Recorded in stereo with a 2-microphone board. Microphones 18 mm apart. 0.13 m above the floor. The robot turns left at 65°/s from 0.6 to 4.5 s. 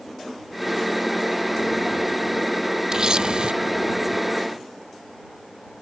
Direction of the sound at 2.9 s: 40° right.